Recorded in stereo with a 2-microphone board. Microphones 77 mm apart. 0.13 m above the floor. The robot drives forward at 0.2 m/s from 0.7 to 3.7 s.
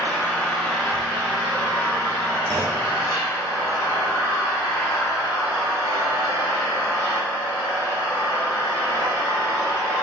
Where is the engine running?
15° left (ahead or behind), 0.9 m; by 10.0 s 10° left (ahead or behind), 1.5 m.